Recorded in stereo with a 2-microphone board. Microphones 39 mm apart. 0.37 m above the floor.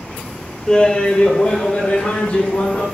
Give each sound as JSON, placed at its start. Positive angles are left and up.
{"t": 0.7, "sound": "laughter", "side_deg": 15, "distance_m": 0.8}